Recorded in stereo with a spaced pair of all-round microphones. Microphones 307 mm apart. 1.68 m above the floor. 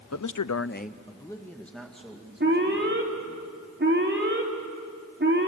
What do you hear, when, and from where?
0.1 s a man speaking: 55° left (ahead or behind), 0.7 m; by 3.4 s 5° right (ahead or behind), 4.5 m
2.4 s an alarm: 35° right (ahead or behind), 3.5 m